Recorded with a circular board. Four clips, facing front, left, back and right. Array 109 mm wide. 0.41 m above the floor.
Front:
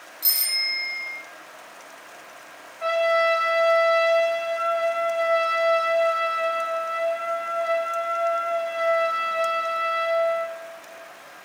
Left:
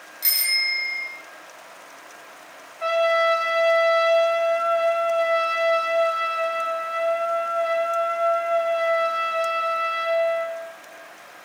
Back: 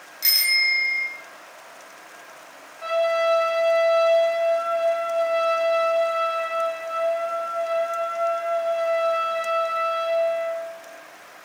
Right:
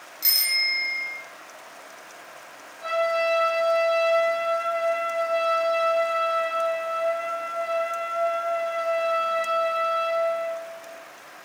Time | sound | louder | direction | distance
0.2 | a bicycle bell | left 2 dB, back 9 dB | 170° left | 4.5 m
2.8 | a trumpet | left 4 dB, even | 70° left | 8.5 m